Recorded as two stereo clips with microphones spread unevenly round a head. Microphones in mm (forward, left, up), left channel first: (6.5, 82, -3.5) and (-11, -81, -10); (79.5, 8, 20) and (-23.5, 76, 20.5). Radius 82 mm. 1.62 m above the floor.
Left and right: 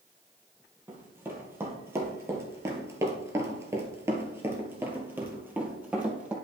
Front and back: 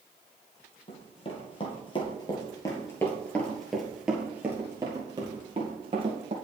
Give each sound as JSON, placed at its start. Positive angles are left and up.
{"t": 0.9, "sound": "running footsteps", "azimuth_deg": -20, "distance_m": 2.5}